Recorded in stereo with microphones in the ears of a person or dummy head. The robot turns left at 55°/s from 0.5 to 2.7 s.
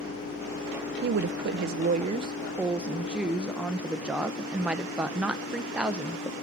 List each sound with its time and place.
1.0 s a woman speaking: 75° right, 0.5 m; by 6.3 s 170° right, 0.5 m